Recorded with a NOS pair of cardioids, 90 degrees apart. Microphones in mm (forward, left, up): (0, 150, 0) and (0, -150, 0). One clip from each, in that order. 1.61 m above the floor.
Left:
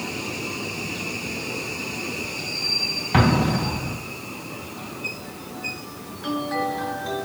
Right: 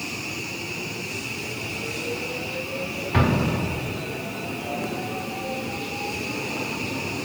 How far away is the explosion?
About 2.5 m.